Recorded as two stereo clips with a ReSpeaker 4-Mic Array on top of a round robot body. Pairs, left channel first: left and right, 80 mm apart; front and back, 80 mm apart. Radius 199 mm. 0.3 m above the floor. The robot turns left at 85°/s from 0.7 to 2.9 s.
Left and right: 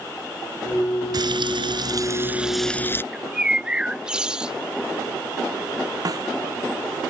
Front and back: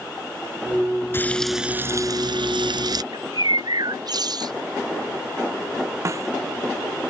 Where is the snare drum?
130° right.